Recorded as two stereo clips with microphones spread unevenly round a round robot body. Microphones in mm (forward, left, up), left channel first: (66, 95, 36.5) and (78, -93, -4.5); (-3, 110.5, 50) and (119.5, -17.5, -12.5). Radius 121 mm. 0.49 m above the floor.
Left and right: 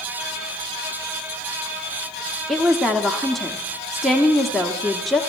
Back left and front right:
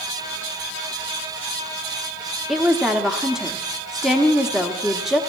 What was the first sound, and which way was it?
A woman speaking, 25° right.